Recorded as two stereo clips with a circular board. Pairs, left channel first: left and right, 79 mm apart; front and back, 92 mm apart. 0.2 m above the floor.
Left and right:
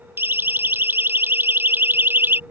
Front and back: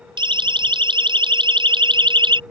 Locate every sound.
0.2 s a siren: 150° right